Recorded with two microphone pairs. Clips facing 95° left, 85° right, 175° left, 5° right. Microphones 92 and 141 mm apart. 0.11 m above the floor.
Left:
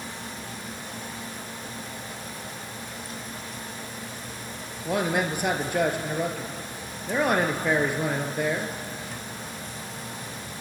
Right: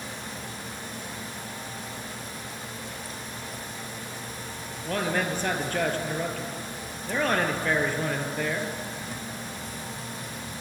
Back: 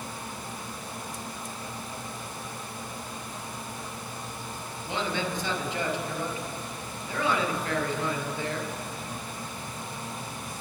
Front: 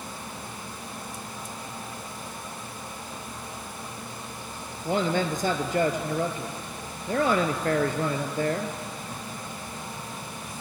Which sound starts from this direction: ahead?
A man speaking, at 4.8 s.